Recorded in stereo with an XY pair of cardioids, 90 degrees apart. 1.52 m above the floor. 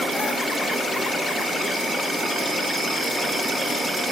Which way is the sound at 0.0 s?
15° right.